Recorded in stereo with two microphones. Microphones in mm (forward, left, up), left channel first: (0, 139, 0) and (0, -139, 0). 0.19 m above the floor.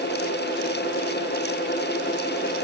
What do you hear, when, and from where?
Only background noise.